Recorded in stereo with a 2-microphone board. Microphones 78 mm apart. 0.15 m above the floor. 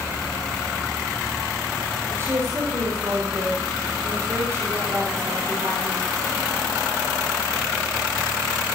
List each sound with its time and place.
2.1 s a woman speaking: 35° right (ahead or behind), 6 m